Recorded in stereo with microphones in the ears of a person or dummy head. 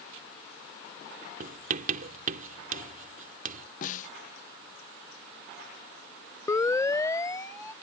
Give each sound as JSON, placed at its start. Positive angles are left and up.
{"t": 1.4, "sound": "writing", "side_deg": -45}
{"t": 3.8, "sound": "a snare drum", "side_deg": 40}
{"t": 6.5, "sound": "a siren", "side_deg": 20}